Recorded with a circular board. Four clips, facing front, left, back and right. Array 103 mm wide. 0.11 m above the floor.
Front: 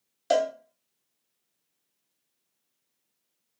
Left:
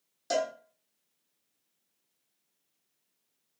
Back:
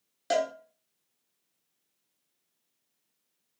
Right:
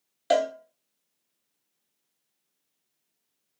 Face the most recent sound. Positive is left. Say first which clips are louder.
# right 7 dB, front 4 dB
turn(degrees=-100)